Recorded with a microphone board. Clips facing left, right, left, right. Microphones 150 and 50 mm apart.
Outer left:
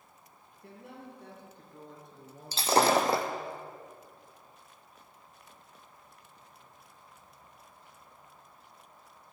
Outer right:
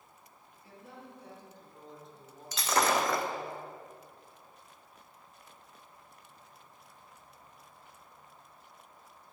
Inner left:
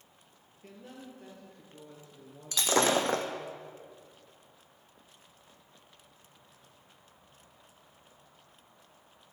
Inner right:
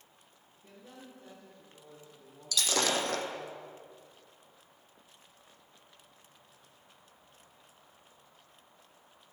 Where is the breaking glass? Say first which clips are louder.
Outer left 4 dB, inner left 4 dB; 35° left (ahead or behind), 1.3 m.